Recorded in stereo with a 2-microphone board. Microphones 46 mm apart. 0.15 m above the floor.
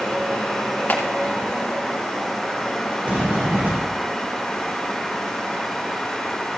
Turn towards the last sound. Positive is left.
turn(degrees=-35)  # may be behind; listen again after turning